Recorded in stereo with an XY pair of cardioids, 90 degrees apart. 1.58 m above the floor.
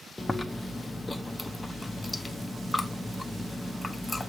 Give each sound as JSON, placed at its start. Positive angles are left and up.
{"t": 0.2, "sound": "chewing", "azimuth_deg": 15, "distance_m": 0.8}